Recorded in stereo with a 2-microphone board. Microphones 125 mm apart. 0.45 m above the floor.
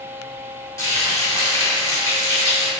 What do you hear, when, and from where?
0.8 s frying: 25° left (ahead or behind), 0.9 m